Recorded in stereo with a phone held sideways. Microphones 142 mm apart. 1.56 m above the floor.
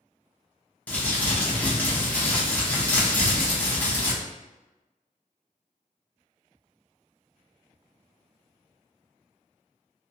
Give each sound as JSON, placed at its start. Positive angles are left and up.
{"t": 0.9, "sound": "crumpling", "side_deg": 10, "distance_m": 0.7}